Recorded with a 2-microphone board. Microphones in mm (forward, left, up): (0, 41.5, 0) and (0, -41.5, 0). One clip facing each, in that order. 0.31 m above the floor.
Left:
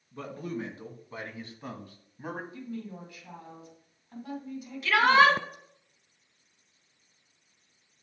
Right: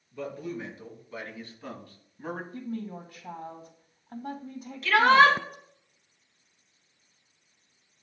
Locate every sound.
0.1 s a man speaking: 45° left (ahead or behind), 2.5 m; by 2.4 s 5° left (ahead or behind), 1.7 m
2.5 s a woman speaking: 45° right (ahead or behind), 2.5 m
4.8 s a shout: 5° left (ahead or behind), 2 m